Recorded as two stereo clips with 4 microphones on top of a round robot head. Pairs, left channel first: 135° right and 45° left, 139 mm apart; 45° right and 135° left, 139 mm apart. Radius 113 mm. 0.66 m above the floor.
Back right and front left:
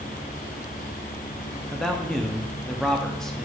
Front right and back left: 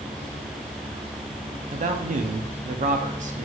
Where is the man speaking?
140° left, 0.9 m.